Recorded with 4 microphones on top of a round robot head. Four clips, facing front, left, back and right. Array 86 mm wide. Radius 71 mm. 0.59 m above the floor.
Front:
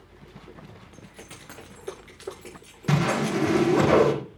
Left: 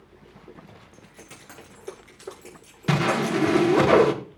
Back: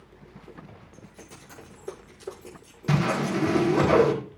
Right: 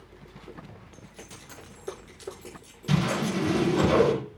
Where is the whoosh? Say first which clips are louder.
Left 4 dB, front 1 dB; 80° left, 1.8 m.